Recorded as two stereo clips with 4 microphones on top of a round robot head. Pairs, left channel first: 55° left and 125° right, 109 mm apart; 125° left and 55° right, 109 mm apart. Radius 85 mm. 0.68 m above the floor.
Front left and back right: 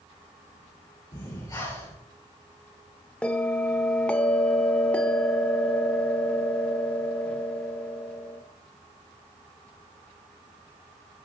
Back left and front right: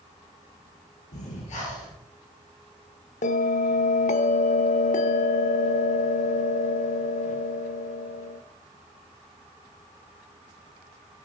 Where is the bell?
135° left, 0.9 m.